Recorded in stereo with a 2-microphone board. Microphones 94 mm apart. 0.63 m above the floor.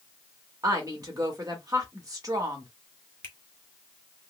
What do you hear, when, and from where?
0.6 s a woman speaking: 40° right (ahead or behind), 1.3 m
3.2 s a finger snap: 25° left (ahead or behind), 1.1 m